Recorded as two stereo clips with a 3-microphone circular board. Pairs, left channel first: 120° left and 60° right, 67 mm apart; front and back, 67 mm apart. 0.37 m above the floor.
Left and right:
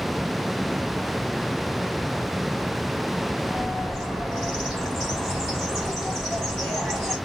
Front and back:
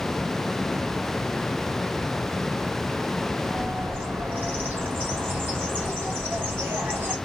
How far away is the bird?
About 1.7 m.